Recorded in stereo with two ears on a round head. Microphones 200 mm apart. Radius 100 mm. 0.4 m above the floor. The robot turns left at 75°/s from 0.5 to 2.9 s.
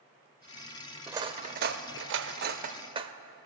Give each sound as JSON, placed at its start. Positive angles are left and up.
{"t": 1.1, "sound": "cutlery clinking", "side_deg": -10, "distance_m": 0.6}